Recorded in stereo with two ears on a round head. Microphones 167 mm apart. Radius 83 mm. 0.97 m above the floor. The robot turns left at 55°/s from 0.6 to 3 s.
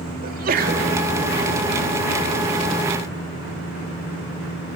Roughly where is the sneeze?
Right.